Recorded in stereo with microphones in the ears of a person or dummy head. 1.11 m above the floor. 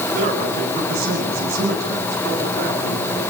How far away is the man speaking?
About 10 m.